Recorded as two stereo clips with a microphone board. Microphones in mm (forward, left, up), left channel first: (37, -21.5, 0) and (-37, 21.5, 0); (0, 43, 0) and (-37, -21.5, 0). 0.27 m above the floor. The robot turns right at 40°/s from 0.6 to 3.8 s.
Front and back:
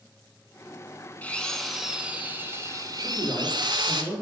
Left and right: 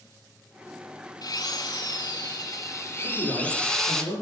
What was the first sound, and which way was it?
A drill, 40° left.